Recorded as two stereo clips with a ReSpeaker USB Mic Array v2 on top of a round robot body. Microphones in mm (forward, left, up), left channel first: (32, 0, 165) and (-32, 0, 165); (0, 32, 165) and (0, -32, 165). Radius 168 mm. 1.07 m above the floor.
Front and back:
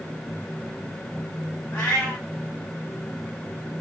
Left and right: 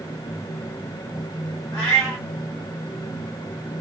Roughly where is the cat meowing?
Left.